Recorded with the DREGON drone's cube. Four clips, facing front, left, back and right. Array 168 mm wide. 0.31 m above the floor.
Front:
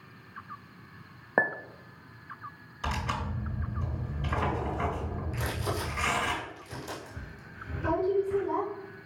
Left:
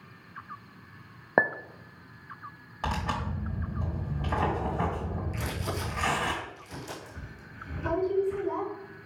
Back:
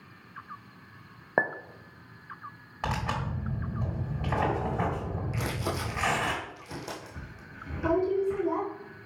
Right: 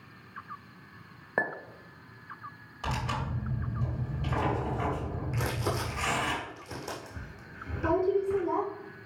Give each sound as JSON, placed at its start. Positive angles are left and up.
{"t": 1.4, "sound": "a clink", "azimuth_deg": 100, "distance_m": 0.5}
{"t": 2.8, "sound": "tearing paper", "azimuth_deg": 145, "distance_m": 3.0}
{"t": 5.3, "sound": "crumpling", "azimuth_deg": -130, "distance_m": 3.0}